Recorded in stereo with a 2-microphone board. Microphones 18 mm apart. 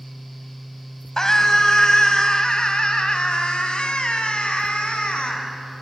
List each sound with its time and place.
1.2 s a scream: 30° left (ahead or behind), 2.5 m; by 5.4 s 70° left (ahead or behind), 4 m